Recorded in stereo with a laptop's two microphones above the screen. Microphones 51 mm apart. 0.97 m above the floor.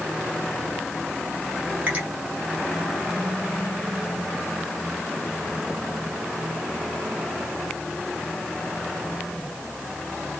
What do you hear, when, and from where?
1.9 s a finger snap: 30° right (ahead or behind), 1.0 m